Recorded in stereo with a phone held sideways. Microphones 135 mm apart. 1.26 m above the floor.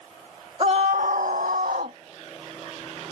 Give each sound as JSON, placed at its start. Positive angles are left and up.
{"t": 0.6, "sound": "a scream", "side_deg": -45}